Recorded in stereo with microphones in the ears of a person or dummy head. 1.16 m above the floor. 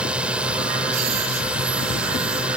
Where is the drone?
10° right (ahead or behind).